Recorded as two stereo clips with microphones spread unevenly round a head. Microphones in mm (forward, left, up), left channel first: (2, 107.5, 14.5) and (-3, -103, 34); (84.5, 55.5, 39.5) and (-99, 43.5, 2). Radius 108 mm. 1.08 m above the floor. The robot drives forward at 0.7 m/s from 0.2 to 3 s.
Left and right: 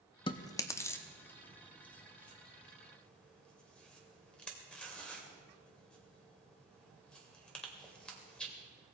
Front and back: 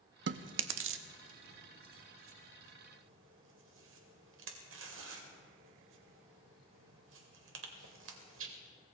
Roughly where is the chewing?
Behind left.